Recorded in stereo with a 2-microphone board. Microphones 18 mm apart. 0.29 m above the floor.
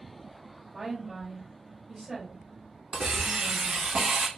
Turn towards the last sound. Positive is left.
turn(degrees=-65)  # may be behind; listen again after turning